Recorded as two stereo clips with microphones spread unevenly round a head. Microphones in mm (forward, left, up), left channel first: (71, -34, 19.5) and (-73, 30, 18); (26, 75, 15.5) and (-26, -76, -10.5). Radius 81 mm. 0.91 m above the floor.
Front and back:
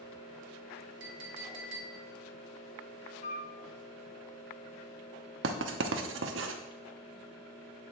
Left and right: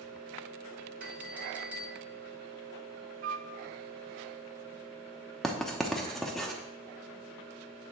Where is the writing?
160° left, 0.8 m.